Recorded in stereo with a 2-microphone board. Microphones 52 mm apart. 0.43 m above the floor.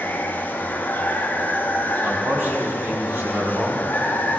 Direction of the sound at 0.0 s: 35° left (ahead or behind).